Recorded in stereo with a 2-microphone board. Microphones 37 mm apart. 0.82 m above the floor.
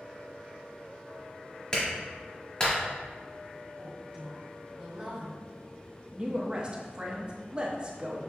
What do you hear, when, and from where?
1.7 s a clap: 25° left (ahead or behind), 1.5 m
3.8 s a woman speaking: 25° right (ahead or behind), 1.7 m
6.1 s a woman speaking: 25° right (ahead or behind), 0.7 m